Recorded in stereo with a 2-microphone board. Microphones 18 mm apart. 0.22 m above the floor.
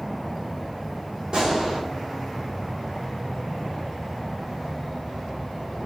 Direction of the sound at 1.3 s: 70° right (ahead or behind).